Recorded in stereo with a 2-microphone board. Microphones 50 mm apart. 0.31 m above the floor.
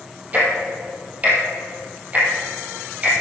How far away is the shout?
I don't hear a shout.